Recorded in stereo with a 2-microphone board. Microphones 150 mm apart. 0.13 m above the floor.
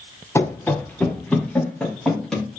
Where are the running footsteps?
15° left (ahead or behind), 1.6 m; by 2.6 s 5° left (ahead or behind), 4 m.